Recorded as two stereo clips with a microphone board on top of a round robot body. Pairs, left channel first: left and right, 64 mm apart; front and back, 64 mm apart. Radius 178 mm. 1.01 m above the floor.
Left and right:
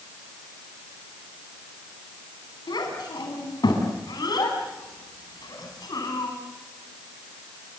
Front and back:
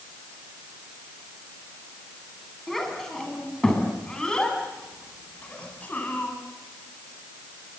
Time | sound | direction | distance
2.7 | a child speaking | 85° left | 7.5 m